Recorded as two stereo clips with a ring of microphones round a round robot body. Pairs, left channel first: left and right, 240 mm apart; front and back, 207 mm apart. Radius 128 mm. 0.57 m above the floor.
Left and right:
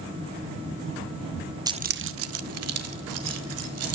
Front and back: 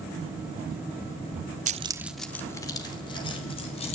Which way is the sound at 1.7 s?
160° right.